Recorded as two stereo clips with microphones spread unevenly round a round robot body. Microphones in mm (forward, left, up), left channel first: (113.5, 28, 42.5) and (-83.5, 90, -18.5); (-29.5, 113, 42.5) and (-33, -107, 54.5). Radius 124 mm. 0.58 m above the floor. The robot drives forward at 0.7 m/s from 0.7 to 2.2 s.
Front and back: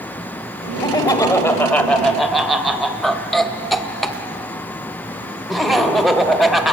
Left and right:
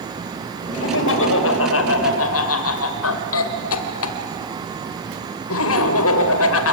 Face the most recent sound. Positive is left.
turn(degrees=75)